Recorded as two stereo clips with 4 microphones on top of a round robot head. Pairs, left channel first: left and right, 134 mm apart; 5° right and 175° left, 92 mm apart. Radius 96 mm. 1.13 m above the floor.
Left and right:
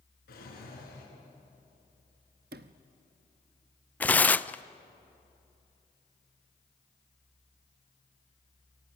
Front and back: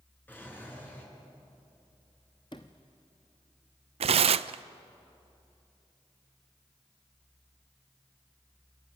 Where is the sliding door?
65° right, 0.7 m.